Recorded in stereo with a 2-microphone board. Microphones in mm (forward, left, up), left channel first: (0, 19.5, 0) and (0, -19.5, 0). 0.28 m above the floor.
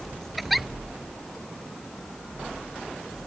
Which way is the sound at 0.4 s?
Centre (ahead or behind).